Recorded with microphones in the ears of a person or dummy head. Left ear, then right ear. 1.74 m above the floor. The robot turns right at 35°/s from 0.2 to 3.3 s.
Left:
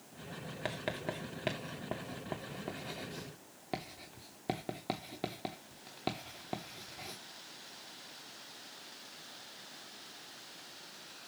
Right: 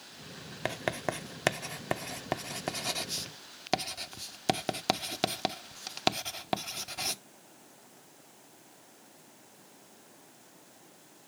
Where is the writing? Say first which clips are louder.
Right 6 dB; 25° right (ahead or behind), 0.6 m; by 7.2 s 60° right (ahead or behind), 0.6 m.